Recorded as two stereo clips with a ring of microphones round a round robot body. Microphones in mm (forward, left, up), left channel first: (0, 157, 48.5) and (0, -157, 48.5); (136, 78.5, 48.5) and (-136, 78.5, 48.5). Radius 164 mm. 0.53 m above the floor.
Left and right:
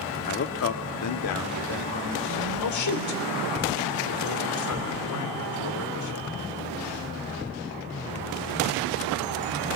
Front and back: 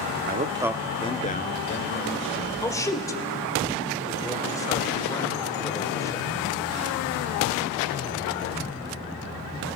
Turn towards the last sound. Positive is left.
turn(degrees=75)